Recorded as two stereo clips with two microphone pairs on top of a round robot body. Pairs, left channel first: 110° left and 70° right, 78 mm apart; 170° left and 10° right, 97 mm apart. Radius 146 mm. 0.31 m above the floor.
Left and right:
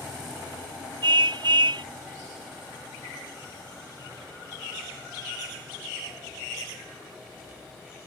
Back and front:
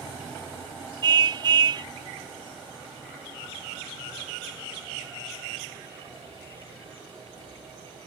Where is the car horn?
50° right.